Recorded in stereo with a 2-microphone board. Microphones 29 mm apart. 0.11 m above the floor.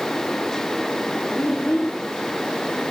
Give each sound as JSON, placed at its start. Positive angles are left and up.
{"t": 1.4, "sound": "a child speaking", "side_deg": 80, "distance_m": 5.5}